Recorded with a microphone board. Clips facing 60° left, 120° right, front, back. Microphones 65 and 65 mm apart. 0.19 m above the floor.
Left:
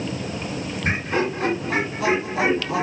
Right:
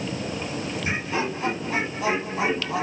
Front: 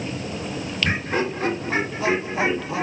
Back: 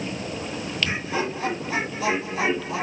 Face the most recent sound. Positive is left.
turn(degrees=65)